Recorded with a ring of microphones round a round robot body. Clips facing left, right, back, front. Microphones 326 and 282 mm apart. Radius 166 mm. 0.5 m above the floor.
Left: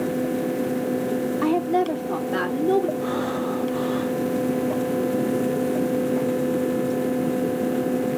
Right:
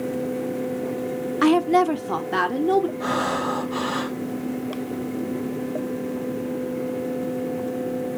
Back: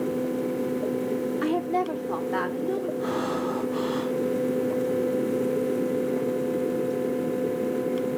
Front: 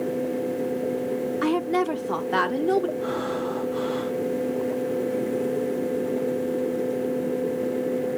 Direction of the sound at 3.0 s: 115° right.